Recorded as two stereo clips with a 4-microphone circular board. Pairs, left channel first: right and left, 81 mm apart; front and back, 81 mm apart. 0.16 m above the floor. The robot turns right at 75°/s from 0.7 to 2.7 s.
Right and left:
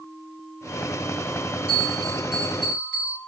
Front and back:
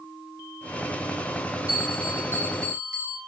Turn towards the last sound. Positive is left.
turn(degrees=-155)